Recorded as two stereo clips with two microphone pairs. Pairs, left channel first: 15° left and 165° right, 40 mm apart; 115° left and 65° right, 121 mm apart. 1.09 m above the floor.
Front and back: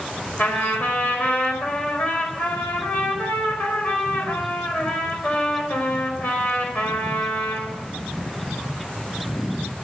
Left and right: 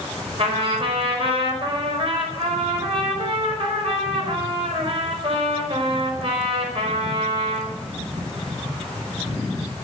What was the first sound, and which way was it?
A trumpet, 30° right.